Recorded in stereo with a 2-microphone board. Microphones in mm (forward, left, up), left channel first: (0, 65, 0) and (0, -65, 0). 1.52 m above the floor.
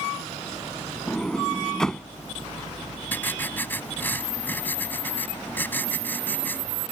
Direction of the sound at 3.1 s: 15° left (ahead or behind).